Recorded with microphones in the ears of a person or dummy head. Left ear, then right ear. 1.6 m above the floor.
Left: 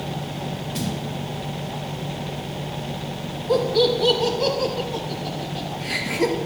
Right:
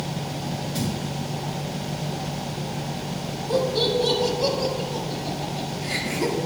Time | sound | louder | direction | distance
0.8 | a thud | left 1 dB | 15° left (ahead or behind) | 4 m
3.5 | laughter | left 3 dB | 60° left (ahead or behind) | 4 m